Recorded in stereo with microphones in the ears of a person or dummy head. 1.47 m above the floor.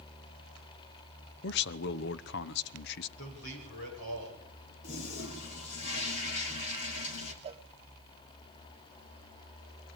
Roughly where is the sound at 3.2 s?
Left.